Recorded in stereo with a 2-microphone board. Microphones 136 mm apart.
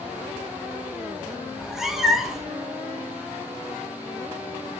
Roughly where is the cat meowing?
Centre.